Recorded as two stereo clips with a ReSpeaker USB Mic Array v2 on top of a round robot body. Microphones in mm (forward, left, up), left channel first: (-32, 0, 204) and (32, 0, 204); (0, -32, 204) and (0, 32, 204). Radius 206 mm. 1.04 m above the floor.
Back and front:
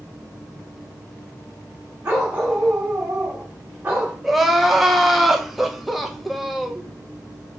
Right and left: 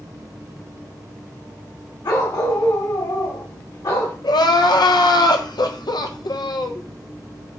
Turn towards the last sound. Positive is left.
turn(degrees=-90)